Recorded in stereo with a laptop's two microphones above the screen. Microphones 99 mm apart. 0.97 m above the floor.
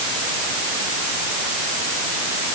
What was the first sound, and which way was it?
Only background noise.